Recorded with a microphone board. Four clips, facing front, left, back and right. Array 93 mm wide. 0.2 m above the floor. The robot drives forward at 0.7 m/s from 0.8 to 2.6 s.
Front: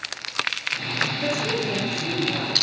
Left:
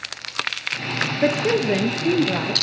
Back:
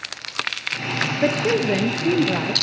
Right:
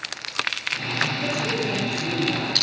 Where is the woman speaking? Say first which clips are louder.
Left 6 dB, back 9 dB; 130° left, 3.5 m; by 2.5 s 140° left, 4.5 m.